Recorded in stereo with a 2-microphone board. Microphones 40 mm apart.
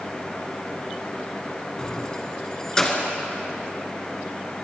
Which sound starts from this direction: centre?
Keys jangling, at 1.8 s.